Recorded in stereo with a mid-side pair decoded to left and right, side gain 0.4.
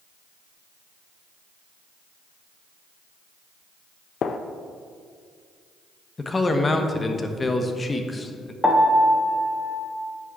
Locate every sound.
4.2 s a gunshot: 60° left, 0.5 m
6.2 s a man speaking: 30° left, 1.0 m
8.6 s a piano: 5° left, 1.3 m